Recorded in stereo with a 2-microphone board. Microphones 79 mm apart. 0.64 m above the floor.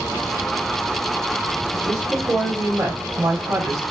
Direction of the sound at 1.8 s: 50° right (ahead or behind).